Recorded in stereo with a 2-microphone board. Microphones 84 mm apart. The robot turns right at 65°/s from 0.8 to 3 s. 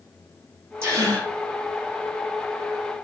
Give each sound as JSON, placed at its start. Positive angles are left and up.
{"t": 0.8, "sound": "a gasp", "azimuth_deg": -150, "distance_m": 4.5}